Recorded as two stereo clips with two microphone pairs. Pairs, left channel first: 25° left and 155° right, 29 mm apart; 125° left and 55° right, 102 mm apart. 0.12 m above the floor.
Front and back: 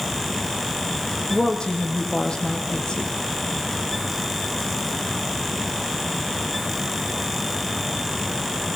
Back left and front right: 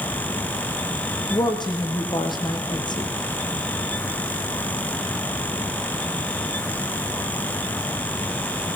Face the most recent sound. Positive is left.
turn(degrees=85)